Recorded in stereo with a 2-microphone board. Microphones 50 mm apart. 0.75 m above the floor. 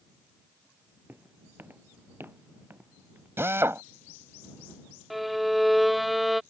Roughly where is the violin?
Centre.